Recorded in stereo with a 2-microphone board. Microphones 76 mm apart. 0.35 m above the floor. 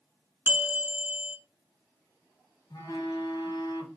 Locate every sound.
0.5 s a bell: 25° right (ahead or behind), 0.9 m
2.7 s a phone buzzing: 65° left (ahead or behind), 1.0 m